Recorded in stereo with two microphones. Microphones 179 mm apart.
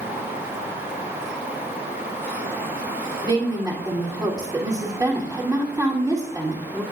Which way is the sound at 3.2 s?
20° right (ahead or behind).